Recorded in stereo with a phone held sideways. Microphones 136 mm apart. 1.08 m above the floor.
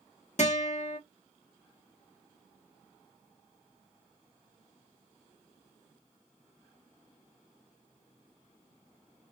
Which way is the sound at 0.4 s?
55° left (ahead or behind).